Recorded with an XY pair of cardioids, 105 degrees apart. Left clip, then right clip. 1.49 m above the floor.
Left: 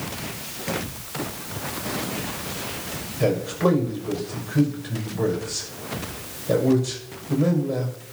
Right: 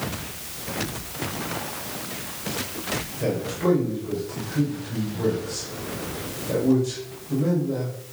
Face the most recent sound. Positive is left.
turn(degrees=40)